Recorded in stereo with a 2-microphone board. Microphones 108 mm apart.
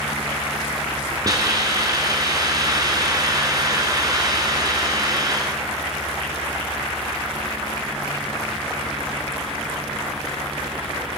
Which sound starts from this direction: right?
A hiss, at 1.2 s.